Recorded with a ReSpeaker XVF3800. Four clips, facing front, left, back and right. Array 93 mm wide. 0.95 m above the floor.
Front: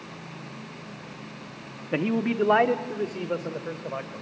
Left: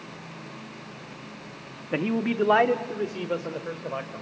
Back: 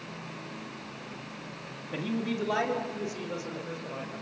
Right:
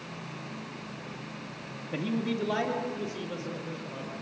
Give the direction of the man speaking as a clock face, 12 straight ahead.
11 o'clock.